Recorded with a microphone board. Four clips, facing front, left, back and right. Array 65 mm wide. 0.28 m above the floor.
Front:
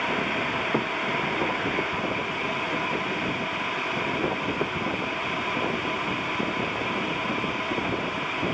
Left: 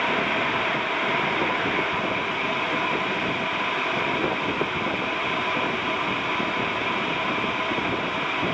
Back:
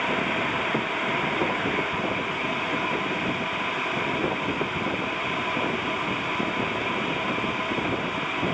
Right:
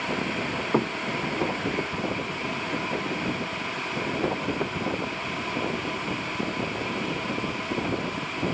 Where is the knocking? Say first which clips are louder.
Right 1 dB, even; 80° right.